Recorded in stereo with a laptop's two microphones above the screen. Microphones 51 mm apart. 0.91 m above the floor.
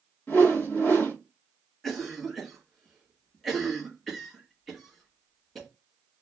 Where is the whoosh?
40° left (ahead or behind), 1.2 m.